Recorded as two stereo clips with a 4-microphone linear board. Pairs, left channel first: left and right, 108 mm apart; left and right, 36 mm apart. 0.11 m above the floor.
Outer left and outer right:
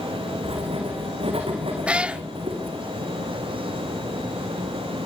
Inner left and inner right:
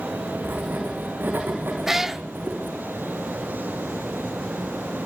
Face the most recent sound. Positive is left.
turn(degrees=-10)  # may be behind; listen again after turning